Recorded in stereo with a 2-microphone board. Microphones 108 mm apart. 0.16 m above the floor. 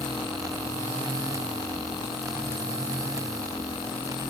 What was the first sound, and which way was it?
Only background noise.